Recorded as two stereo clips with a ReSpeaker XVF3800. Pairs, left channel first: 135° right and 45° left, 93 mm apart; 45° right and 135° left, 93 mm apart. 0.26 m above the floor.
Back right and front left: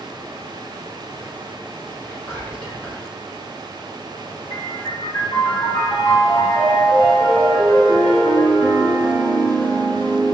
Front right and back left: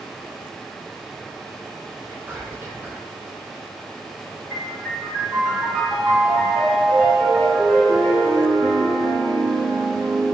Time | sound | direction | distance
2.0 | whispering | 175° left | 1.4 m
4.5 | a piano | 100° right | 1.8 m